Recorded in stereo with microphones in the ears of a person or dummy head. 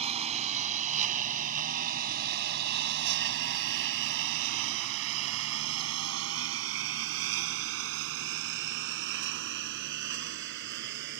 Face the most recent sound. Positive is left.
turn(degrees=-55)  # may be behind; listen again after turning